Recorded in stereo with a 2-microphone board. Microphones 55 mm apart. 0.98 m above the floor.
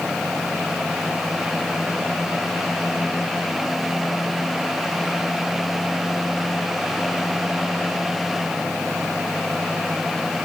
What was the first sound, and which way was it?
Only background noise.